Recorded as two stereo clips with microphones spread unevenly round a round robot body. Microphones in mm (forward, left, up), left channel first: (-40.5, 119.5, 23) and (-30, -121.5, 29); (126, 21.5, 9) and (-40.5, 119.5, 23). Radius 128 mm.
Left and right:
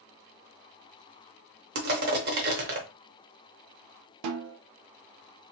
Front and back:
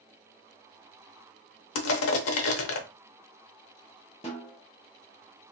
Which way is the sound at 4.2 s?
100° right.